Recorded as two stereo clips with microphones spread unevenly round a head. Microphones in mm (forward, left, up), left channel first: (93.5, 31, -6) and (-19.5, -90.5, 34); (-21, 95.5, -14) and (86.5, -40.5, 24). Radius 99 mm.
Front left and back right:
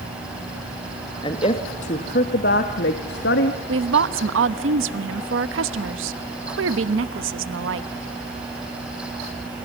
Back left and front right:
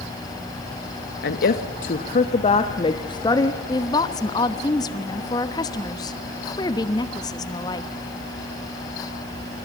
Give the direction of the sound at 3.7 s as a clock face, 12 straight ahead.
5 o'clock.